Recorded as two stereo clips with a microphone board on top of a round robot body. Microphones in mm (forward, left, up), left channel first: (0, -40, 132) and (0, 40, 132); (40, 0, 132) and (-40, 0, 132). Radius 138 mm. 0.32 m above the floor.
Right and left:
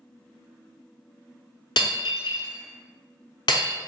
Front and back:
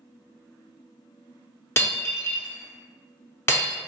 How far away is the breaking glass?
About 0.7 m.